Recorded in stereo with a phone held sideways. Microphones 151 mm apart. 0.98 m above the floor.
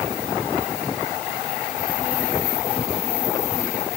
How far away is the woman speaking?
No woman speaking in this recording.